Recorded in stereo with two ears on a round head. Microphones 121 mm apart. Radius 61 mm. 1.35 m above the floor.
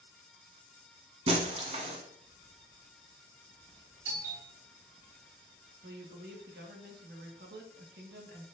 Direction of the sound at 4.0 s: 65° right (ahead or behind).